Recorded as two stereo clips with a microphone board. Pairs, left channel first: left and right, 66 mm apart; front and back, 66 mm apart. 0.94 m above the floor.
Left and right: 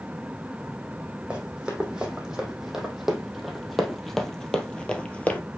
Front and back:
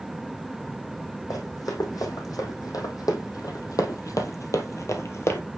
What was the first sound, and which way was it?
Running footsteps, 15° right.